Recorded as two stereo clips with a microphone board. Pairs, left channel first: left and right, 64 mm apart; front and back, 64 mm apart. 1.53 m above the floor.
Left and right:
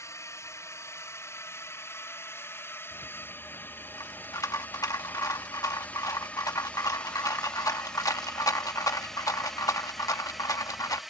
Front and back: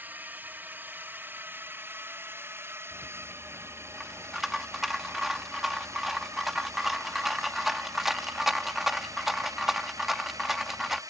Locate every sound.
0.0 s a drone: 120° left; by 11.1 s 175° right
2.9 s a rattle: 95° left